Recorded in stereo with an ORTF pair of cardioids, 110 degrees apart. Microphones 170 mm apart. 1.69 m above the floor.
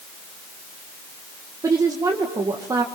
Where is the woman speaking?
20° right, 1.9 m.